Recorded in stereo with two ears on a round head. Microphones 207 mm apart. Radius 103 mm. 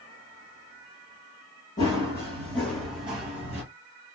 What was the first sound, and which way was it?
Running footsteps, 15° left (ahead or behind).